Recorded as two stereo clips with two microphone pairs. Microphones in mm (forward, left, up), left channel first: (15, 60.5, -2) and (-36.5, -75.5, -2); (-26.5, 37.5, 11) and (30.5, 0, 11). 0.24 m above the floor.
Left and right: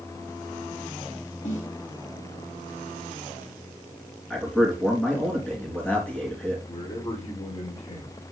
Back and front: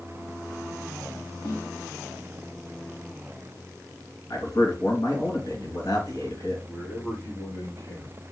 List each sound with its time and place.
1.4 s a snare drum: 100° left, 4 m
4.3 s a man speaking: 150° left, 3.5 m
6.7 s a man speaking: 100° left, 4.5 m